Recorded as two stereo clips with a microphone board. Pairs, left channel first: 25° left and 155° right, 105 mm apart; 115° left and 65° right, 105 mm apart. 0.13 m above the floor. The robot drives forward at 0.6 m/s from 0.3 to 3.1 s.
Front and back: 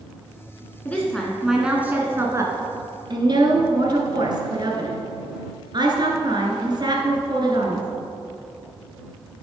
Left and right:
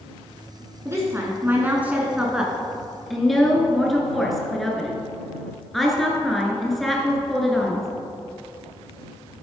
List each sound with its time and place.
0.8 s a woman speaking: 35° right, 1.1 m; by 7.9 s 160° right, 1.4 m